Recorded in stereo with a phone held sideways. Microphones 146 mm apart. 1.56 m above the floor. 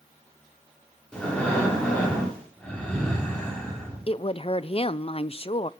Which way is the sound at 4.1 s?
40° left (ahead or behind).